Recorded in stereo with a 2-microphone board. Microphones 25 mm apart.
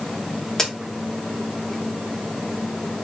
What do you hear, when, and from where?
0.6 s a crack: 25° left (ahead or behind), 1.0 m